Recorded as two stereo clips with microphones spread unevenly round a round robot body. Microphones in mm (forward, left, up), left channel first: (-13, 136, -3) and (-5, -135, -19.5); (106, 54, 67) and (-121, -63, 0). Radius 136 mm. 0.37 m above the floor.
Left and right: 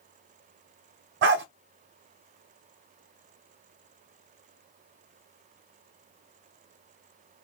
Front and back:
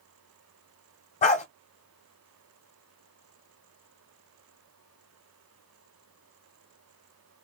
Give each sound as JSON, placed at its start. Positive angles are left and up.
{"t": 1.2, "sound": "a dog barking", "azimuth_deg": -35, "distance_m": 0.7}